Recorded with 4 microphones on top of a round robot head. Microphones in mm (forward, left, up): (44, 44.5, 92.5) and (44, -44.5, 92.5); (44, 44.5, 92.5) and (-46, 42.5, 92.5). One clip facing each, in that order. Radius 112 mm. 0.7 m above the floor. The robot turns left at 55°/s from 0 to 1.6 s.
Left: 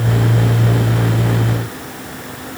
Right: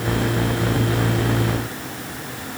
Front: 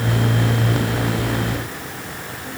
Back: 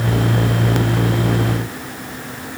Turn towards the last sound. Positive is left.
No sound to turn to.